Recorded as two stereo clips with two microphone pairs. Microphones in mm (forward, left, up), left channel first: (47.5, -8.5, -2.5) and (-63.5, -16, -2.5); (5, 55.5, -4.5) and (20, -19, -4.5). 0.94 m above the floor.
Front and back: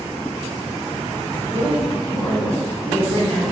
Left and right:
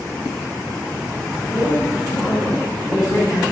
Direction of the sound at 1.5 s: 50° left.